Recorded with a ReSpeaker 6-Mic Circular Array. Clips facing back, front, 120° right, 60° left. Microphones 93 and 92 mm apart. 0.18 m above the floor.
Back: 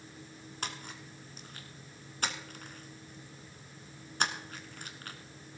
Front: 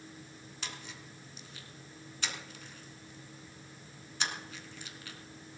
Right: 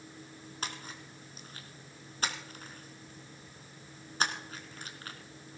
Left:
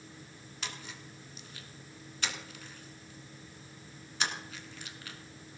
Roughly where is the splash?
Behind right.